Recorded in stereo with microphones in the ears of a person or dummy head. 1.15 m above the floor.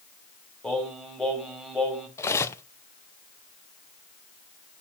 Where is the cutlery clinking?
15° left (ahead or behind), 0.6 m.